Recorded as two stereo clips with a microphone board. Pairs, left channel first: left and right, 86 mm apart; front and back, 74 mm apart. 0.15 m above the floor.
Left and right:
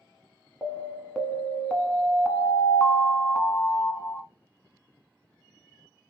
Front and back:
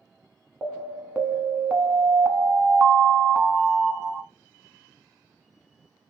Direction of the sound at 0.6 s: 160° left.